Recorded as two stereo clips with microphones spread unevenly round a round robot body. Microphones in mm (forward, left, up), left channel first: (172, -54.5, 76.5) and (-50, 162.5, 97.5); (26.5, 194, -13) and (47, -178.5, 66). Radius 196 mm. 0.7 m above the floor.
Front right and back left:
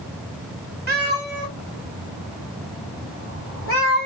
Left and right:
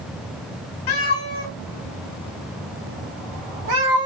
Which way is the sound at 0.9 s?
80° left.